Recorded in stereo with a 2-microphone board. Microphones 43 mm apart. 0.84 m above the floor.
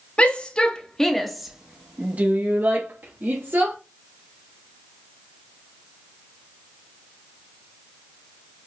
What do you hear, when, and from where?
0.2 s a shout: 30° left (ahead or behind), 1.5 m; by 3.8 s 65° right (ahead or behind), 1.8 m